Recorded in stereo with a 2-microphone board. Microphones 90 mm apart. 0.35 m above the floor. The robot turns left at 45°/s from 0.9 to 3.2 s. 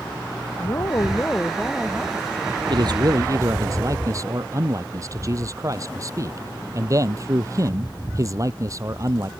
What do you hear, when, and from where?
0.6 s a woman speaking: 40° left; by 3.1 s 55° right
2.7 s a man speaking: 60° right (ahead or behind); by 9.3 s 40° right (ahead or behind)